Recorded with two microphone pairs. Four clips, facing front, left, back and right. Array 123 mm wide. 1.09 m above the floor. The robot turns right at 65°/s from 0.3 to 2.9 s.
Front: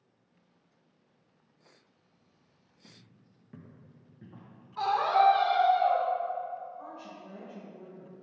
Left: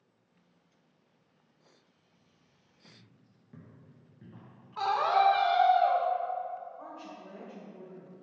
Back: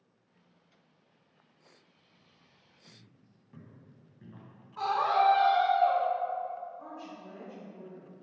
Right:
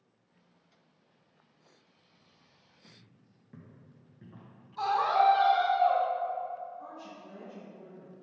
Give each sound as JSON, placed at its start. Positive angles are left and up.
{"t": 2.8, "sound": "footsteps", "azimuth_deg": -10, "distance_m": 1.3}
{"t": 4.8, "sound": "a scream", "azimuth_deg": 85, "distance_m": 1.1}
{"t": 6.8, "sound": "a woman speaking", "azimuth_deg": 85, "distance_m": 1.4}